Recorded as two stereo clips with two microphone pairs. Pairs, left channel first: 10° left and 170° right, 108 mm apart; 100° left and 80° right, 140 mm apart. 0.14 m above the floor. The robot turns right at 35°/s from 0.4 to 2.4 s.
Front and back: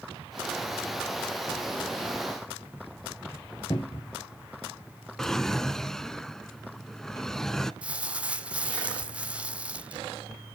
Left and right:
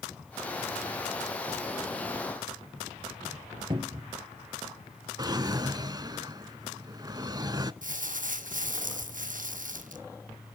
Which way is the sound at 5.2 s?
75° right.